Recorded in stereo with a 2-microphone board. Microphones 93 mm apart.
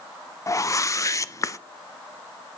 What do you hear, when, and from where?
0.5 s a whoosh: 35° left (ahead or behind), 0.5 m